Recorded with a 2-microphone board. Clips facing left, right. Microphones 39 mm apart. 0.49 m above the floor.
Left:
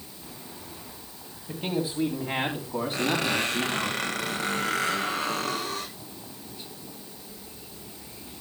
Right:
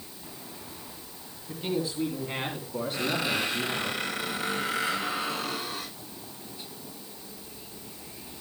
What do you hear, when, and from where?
1.5 s a man speaking: 50° left (ahead or behind), 3 m; by 3.9 s 75° left (ahead or behind), 4 m
2.9 s a squeak: 80° left, 8 m